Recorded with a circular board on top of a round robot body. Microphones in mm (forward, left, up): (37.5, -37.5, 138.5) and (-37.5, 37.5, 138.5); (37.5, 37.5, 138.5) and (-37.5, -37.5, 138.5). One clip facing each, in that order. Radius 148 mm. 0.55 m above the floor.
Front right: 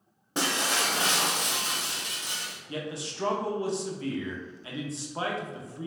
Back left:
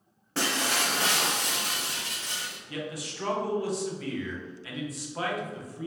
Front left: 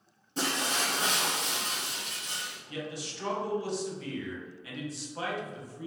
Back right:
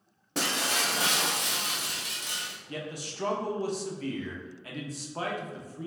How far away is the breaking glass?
About 0.9 m.